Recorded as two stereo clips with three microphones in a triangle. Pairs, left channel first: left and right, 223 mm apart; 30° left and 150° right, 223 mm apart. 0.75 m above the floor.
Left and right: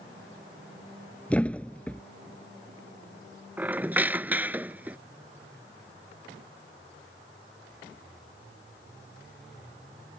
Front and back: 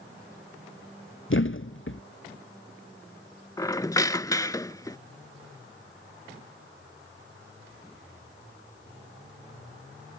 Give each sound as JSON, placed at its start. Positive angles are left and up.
{"t": 1.3, "sound": "a thud", "azimuth_deg": 5}
{"t": 3.6, "sound": "a squeak", "azimuth_deg": -20}